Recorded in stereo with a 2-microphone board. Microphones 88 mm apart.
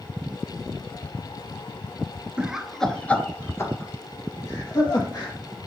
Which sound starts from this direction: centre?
Laughter, at 2.4 s.